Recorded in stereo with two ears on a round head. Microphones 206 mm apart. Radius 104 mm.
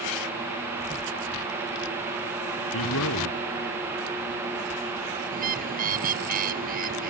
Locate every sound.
2.7 s a man speaking: 75° left (ahead or behind)
5.3 s a bird: 40° right (ahead or behind)